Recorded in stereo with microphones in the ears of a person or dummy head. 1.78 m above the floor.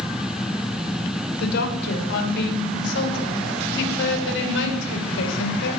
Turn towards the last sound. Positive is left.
turn(degrees=70)  # may be behind; listen again after turning